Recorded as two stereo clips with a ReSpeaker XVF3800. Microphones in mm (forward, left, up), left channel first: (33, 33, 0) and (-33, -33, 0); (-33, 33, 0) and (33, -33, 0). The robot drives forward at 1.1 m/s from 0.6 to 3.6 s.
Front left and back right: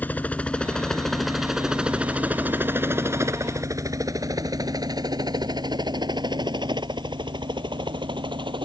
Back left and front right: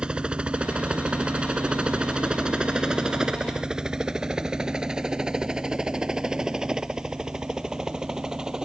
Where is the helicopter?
15° left; by 8.7 s 125° right.